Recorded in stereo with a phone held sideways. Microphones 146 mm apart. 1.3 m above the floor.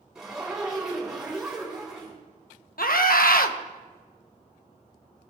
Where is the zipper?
5° right (ahead or behind), 4 m.